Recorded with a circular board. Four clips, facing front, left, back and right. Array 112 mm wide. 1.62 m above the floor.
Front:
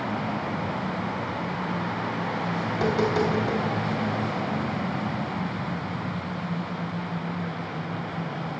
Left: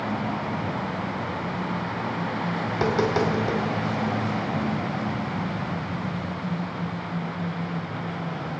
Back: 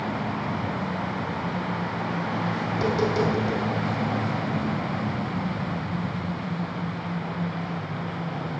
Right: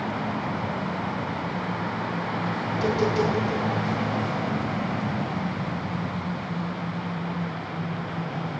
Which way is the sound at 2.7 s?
70° left.